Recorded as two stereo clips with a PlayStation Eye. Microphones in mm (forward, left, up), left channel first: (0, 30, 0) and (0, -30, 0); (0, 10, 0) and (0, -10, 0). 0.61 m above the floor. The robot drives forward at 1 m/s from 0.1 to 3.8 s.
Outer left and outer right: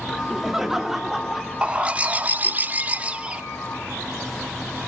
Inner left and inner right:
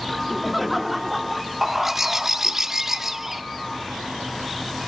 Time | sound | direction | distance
0.1 | laughter | 10° right (ahead or behind) | 1.0 m
1.6 | a bird | 15° right (ahead or behind) | 1.2 m